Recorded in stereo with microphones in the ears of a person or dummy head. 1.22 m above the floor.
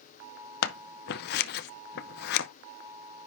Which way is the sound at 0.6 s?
60° left (ahead or behind).